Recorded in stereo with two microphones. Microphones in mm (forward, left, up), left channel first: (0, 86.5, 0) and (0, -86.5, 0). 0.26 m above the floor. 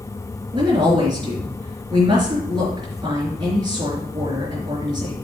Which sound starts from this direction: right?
A woman speaking, at 0.5 s.